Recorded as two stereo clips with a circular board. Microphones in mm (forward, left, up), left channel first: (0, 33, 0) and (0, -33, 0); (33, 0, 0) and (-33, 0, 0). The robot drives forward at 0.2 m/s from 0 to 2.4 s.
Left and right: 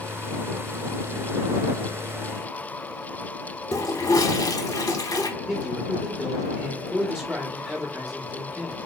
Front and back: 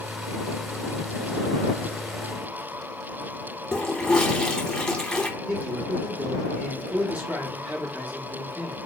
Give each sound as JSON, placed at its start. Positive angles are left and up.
{"t": 3.7, "sound": "a toilet flushing", "azimuth_deg": 80, "distance_m": 0.7}
{"t": 5.5, "sound": "a man speaking", "azimuth_deg": -160, "distance_m": 1.1}